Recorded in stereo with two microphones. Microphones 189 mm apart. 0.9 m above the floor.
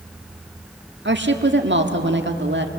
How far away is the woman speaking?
About 1.7 m.